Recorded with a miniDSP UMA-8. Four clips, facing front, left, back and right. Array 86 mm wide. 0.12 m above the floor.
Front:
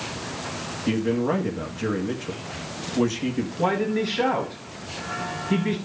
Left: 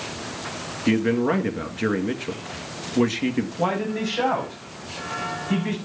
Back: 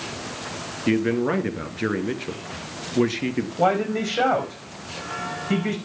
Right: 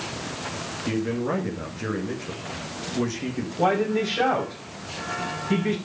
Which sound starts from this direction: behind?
A man speaking, at 3.6 s.